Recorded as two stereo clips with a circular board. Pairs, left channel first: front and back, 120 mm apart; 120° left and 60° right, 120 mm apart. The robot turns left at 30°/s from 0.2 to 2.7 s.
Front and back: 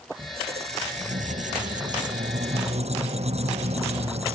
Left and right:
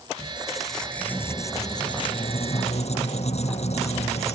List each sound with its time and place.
0.2 s a squeak: 135° right; by 4.3 s 150° left